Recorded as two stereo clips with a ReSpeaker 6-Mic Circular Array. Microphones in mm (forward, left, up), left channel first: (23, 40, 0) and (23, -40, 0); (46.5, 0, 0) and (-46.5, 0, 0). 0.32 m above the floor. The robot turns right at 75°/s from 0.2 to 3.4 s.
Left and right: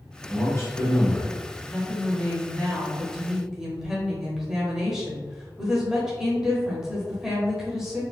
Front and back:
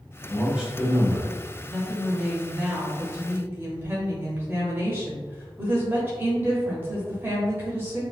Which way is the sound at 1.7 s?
70° left.